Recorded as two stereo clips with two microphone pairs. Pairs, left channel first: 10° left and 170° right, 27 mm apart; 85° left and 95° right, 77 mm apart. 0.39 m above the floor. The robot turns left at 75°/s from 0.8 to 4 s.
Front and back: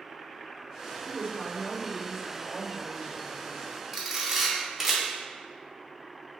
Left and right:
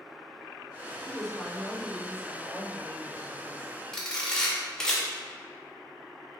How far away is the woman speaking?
About 1.7 m.